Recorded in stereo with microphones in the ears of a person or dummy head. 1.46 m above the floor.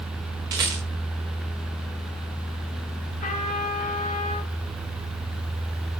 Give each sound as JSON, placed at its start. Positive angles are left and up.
{"t": 0.5, "sound": "a rattle", "side_deg": -15, "distance_m": 1.2}
{"t": 3.2, "sound": "a trumpet", "side_deg": 50, "distance_m": 4.0}